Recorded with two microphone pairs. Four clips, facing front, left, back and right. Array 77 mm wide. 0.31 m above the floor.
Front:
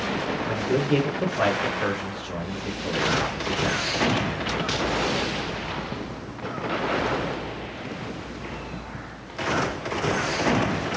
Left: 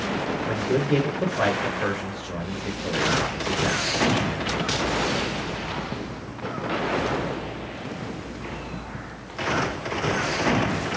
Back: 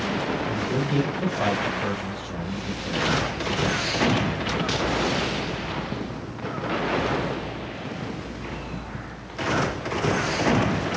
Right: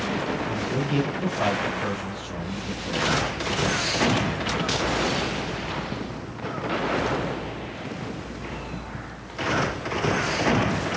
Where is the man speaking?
45° left, 4 m.